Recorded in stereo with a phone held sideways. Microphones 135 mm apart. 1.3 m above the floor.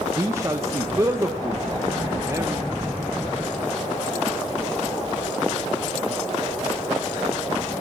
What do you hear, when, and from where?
0.2 s a man speaking: 20° right (ahead or behind), 1.3 m